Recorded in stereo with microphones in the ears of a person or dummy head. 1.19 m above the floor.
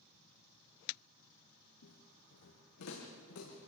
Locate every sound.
1.8 s footsteps: 75° left (ahead or behind), 6 m; by 3.7 s 80° left, 6.5 m